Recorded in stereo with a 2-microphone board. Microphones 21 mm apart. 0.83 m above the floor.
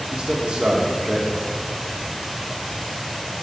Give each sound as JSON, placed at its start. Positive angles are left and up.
{"t": 0.1, "sound": "a man speaking", "side_deg": -70, "distance_m": 1.7}